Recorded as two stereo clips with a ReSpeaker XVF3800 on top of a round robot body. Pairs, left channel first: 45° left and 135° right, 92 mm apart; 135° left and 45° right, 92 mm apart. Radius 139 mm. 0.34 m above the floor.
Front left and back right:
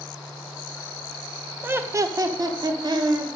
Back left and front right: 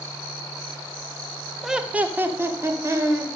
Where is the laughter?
125° right, 0.9 m; by 3.3 s 100° right, 1.9 m.